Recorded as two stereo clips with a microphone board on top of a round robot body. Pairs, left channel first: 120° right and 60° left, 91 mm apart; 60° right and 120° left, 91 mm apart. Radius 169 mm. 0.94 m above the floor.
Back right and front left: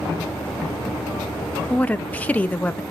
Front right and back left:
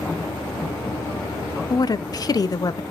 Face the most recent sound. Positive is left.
turn(degrees=-55)